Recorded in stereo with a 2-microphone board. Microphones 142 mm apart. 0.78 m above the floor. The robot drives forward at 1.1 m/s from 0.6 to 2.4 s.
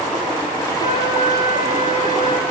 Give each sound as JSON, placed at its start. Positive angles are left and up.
{"t": 0.8, "sound": "a flute", "side_deg": 60, "distance_m": 2.5}